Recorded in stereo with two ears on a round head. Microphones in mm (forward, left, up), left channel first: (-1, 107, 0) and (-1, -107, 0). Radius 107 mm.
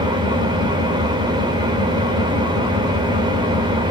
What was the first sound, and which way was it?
An engine running, 20° right (ahead or behind).